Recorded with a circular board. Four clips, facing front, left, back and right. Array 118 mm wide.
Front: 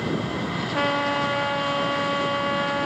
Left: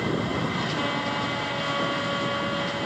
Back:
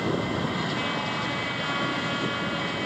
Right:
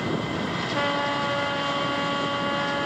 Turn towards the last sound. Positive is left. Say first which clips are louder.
# right 2 dB, front 6 dB
turn(degrees=-25)